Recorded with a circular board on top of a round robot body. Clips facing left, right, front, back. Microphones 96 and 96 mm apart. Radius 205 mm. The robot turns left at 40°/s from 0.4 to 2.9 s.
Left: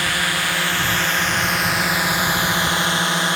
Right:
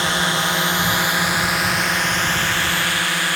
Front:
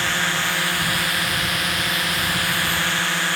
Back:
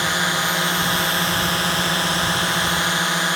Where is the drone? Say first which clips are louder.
Right 2 dB, back 2 dB; 130° right; by 3.4 s 130° left.